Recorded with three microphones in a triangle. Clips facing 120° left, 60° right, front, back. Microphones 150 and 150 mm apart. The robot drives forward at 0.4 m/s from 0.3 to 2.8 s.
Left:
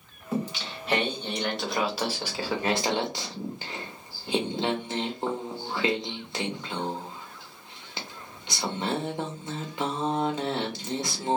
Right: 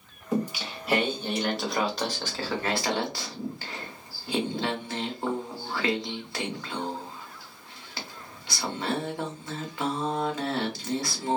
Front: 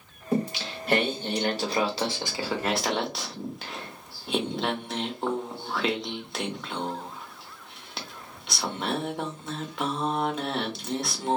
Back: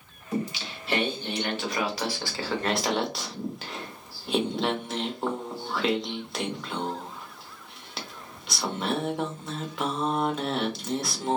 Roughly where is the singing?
Ahead.